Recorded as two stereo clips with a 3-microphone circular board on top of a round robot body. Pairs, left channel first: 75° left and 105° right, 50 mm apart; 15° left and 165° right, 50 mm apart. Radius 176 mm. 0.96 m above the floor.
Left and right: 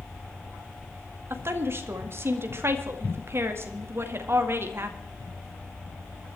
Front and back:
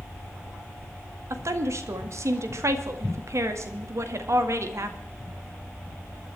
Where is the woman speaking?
145° right, 2 m.